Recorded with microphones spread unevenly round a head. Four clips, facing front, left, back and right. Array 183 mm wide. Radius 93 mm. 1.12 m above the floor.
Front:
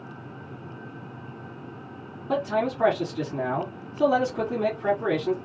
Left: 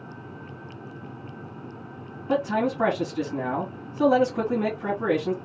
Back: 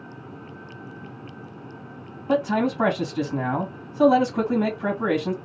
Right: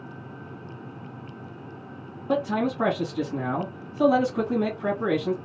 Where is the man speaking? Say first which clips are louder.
Left 1 dB, back 3 dB; 165° right, 1.6 m.